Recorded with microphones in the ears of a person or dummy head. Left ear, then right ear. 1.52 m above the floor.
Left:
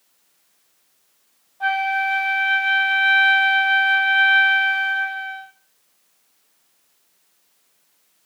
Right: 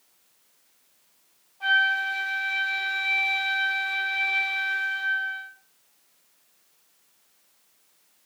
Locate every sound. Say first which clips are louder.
1.6 s a flute: left 2 dB; 25° left (ahead or behind), 1.8 m